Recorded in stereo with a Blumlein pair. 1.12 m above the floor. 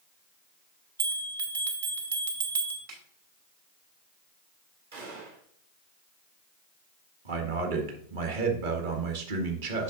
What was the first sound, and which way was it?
A bell, 70° right.